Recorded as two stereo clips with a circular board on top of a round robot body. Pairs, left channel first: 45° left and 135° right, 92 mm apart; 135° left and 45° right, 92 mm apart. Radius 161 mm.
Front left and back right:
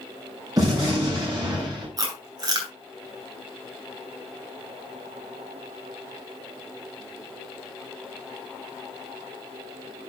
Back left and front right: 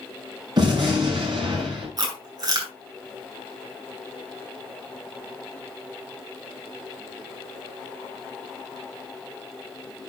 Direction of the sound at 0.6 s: 85° right.